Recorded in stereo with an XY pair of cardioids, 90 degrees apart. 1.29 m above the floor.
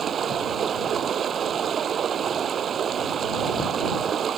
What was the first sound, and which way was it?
Running water, 60° right.